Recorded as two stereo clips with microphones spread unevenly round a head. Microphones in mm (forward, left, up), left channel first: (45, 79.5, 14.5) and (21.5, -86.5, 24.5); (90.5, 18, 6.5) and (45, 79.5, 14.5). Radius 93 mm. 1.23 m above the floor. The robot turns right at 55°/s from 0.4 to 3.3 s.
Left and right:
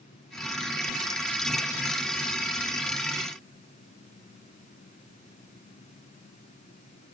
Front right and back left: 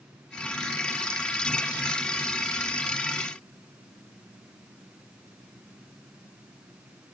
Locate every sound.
Only background noise.